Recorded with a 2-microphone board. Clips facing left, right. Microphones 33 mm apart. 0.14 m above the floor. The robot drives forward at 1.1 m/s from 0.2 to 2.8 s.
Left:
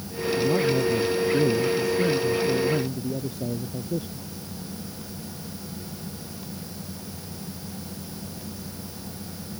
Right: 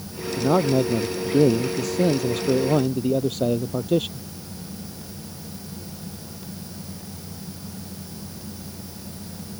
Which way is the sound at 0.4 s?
50° right (ahead or behind).